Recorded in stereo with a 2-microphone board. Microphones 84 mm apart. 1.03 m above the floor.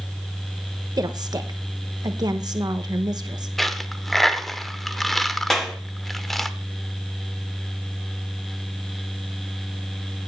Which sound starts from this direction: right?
A woman speaking, at 1.0 s.